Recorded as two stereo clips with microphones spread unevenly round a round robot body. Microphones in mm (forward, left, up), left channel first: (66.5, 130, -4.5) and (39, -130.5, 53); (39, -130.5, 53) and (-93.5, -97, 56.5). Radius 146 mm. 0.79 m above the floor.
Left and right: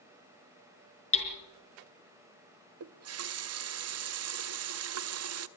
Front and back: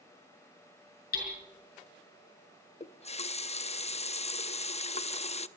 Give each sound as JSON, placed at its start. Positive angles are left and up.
{"t": 1.1, "sound": "hammering", "azimuth_deg": 20, "distance_m": 5.0}
{"t": 2.8, "sound": "a running tap", "azimuth_deg": -60, "distance_m": 0.8}